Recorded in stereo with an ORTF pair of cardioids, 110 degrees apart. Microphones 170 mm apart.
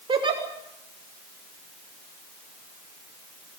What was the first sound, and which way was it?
A giggle, 30° right.